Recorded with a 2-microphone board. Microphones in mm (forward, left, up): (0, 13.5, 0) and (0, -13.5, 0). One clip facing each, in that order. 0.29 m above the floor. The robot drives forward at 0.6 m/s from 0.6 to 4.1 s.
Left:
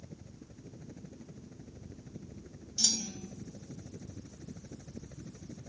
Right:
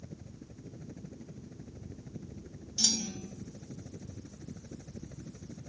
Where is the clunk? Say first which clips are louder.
Right 1 dB; 10° right (ahead or behind).